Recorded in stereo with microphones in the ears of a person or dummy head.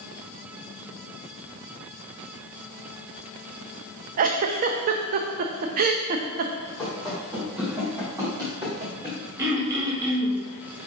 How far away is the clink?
I don't hear a clink.